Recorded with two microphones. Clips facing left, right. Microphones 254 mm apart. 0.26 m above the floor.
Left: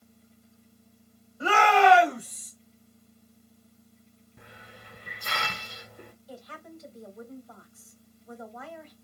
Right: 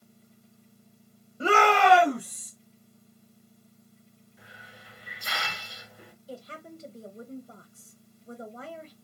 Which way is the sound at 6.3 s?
30° right (ahead or behind).